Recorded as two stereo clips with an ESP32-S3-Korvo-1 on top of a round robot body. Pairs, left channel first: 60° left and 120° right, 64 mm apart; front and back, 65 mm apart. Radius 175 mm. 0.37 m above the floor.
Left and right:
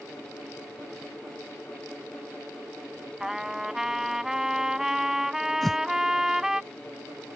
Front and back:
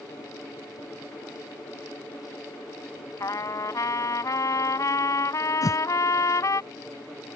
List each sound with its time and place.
3.2 s a trumpet: 40° right
5.6 s a whoosh: 25° right